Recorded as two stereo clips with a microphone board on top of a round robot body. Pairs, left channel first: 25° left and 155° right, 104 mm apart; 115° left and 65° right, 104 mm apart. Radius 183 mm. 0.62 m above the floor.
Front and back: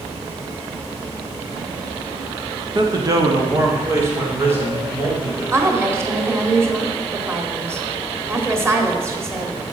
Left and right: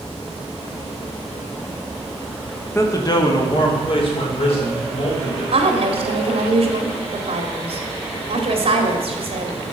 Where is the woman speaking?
95° right, 2 m.